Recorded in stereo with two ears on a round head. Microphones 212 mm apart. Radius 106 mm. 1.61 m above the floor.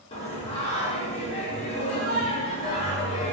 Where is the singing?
25° left (ahead or behind), 0.5 m.